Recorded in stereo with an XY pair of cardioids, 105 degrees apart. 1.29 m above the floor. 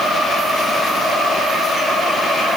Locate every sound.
Only background noise.